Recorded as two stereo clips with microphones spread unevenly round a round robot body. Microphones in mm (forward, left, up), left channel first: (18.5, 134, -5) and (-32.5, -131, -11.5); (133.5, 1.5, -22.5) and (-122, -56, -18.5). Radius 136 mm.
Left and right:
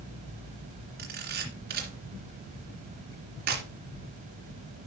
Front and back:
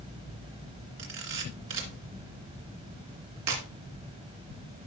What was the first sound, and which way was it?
A camera shutter, 155° right.